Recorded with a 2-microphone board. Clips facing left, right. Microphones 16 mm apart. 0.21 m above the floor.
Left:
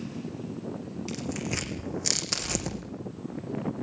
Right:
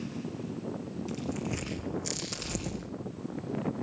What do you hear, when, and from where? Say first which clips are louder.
1.1 s tearing paper: left 3 dB; 35° left (ahead or behind), 4 m